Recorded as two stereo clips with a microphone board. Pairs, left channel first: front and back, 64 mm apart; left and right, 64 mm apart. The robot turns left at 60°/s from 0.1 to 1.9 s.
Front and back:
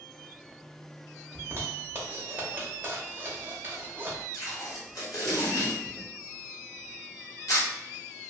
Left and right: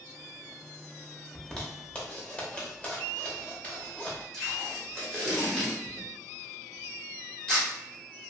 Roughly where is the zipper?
Behind.